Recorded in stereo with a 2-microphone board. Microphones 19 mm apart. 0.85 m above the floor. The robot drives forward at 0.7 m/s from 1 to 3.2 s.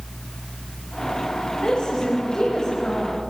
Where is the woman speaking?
55° left (ahead or behind), 5 m; by 3.2 s 45° left (ahead or behind), 6 m.